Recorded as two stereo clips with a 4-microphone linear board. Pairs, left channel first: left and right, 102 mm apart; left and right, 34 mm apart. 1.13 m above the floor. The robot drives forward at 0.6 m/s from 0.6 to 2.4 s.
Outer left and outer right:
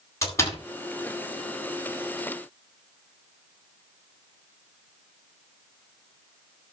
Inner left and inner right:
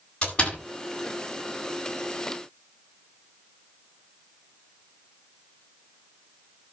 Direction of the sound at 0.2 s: 30° left (ahead or behind).